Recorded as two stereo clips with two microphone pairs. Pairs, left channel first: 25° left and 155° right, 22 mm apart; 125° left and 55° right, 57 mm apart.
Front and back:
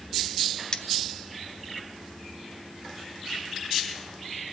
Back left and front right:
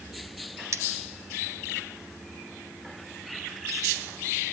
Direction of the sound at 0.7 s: 25° right.